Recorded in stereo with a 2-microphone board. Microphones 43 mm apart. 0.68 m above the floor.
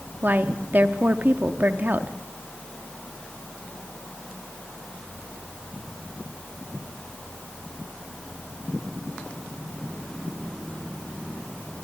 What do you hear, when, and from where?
0.2 s a woman speaking: 45° right (ahead or behind), 0.9 m